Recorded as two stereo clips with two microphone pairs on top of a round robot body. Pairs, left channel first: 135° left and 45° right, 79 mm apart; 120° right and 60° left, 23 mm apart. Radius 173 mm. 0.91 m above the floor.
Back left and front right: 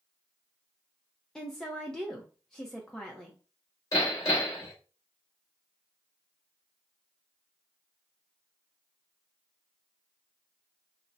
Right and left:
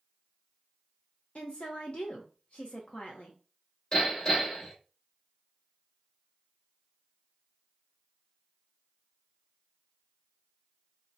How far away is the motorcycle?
No motorcycle in this recording.